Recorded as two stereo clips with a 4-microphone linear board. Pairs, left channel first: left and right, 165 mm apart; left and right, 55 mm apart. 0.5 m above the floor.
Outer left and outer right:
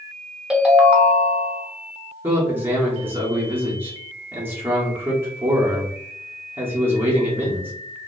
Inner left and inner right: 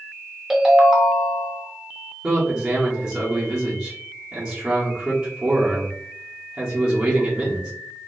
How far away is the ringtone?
About 0.8 m.